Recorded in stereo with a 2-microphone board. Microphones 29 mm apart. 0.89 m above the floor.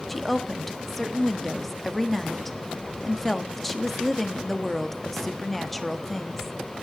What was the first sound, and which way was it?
A woman speaking, 5° left (ahead or behind).